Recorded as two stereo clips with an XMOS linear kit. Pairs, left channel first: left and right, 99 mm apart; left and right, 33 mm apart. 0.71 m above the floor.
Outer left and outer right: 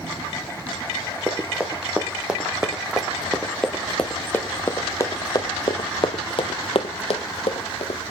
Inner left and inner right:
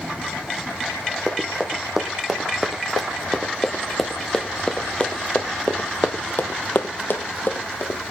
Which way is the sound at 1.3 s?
15° right (ahead or behind).